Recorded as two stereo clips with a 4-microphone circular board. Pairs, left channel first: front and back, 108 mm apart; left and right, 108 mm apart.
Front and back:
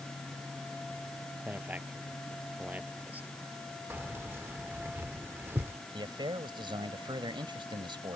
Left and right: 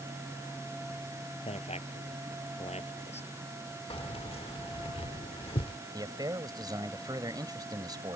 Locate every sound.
1.4 s a man speaking: 105° left
3.9 s keys jangling: 110° left
5.9 s a man speaking: 140° right